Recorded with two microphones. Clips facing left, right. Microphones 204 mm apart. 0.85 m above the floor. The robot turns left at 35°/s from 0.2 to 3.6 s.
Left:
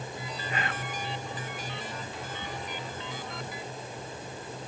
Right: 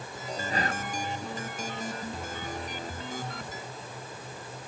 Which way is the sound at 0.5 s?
35° right (ahead or behind).